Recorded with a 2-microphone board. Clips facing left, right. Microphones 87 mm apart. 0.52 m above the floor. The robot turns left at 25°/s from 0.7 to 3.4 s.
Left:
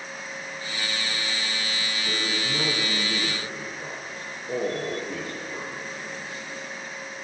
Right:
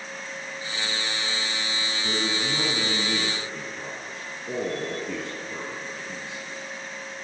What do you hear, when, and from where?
2.0 s a man speaking: 65° right, 4 m; by 6.4 s 100° right, 4 m